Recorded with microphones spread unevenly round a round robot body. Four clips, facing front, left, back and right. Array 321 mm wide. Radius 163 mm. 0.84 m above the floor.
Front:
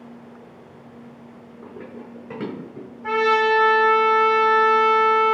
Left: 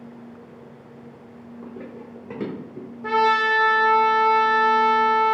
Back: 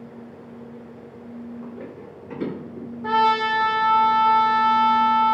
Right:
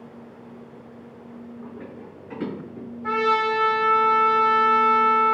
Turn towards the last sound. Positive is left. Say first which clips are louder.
# left 2 dB, front 1 dB
turn(degrees=105)